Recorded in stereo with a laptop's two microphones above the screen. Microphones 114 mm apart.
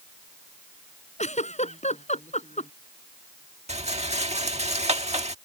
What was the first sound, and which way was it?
A giggle, 75° left (ahead or behind).